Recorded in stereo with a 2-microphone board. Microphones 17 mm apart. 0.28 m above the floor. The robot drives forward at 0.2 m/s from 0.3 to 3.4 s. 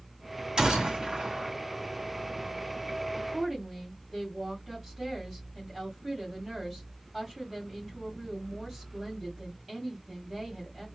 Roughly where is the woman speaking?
Centre.